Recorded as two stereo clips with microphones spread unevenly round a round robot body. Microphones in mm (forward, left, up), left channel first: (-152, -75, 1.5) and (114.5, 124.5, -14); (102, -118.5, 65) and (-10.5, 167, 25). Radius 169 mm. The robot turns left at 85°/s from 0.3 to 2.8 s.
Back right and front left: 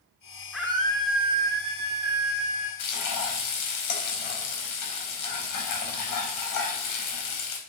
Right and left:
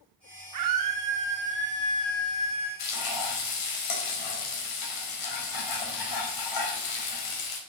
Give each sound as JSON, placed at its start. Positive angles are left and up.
{"t": 0.5, "sound": "a scream", "azimuth_deg": 130, "distance_m": 1.6}
{"t": 2.8, "sound": "frying", "azimuth_deg": -100, "distance_m": 4.5}